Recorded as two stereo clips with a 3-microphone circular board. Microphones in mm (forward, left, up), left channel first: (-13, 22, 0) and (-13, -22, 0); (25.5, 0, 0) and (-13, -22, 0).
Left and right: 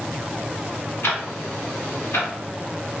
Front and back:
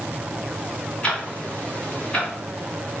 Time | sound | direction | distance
1.0 | ticking | 90° left | 1.3 m